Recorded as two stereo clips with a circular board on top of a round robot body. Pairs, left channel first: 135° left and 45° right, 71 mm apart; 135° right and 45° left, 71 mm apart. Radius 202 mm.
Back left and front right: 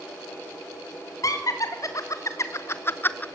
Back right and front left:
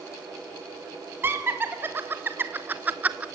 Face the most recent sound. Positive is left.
turn(degrees=95)